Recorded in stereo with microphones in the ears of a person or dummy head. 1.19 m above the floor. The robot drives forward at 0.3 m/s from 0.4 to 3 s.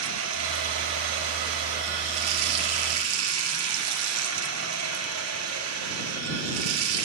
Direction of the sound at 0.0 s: 75° right (ahead or behind).